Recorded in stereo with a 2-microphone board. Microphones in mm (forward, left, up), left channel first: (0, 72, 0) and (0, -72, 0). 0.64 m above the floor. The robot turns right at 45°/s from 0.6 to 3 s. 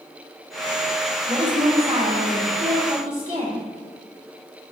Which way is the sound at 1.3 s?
150° right.